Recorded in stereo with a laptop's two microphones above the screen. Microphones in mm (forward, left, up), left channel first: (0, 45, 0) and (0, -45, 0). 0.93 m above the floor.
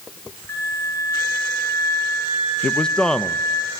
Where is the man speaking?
10° left (ahead or behind), 0.6 m.